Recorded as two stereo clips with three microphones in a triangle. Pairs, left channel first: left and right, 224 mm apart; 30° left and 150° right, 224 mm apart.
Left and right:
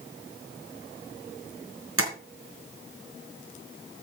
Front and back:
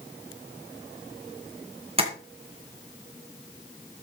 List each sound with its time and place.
2.0 s tapping: 85° right, 3 m